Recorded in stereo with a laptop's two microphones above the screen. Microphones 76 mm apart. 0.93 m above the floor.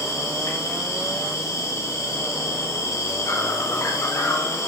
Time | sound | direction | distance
0.0 | an insect | 40° left (ahead or behind) | 0.9 m